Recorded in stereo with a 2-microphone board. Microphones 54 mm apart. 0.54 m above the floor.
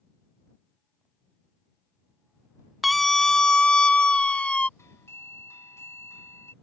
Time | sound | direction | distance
2.8 | a scream | centre (ahead or behind) | ?
4.8 | a doorbell | 60° left (ahead or behind) | ?